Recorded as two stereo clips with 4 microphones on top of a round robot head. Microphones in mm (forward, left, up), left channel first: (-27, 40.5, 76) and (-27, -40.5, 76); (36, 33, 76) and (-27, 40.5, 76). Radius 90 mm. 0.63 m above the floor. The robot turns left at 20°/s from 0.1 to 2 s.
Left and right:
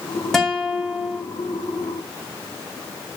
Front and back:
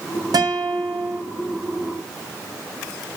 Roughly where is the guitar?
Behind.